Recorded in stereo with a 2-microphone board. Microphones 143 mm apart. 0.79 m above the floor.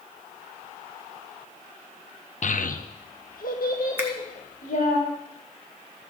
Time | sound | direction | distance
2.4 | a child speaking | 60° left (ahead or behind) | 0.5 m
4.0 | a finger snap | 15° right (ahead or behind) | 1.4 m